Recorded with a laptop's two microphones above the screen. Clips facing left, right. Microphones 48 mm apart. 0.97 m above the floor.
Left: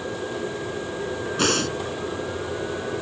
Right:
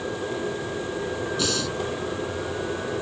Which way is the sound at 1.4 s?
50° left (ahead or behind).